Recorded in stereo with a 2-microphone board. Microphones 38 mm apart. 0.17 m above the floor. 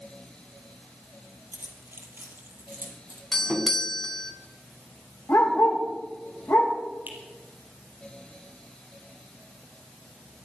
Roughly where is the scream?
I don't hear a scream.